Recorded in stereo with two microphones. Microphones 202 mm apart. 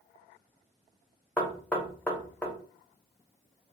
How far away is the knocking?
About 0.8 m.